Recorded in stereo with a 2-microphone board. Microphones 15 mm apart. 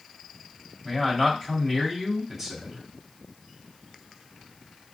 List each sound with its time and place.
0.8 s a man speaking: 5° right (ahead or behind), 2 m